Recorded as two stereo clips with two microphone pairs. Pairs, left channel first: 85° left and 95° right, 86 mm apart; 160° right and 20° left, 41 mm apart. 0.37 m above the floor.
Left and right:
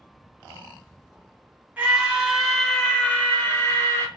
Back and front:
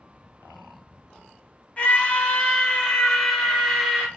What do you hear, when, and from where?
1.8 s a scream: 155° right, 1.2 m; by 4.1 s 105° left, 1.4 m